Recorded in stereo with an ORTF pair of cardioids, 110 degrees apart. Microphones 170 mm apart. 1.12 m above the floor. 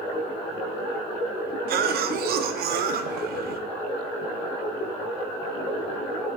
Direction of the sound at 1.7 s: 70° right.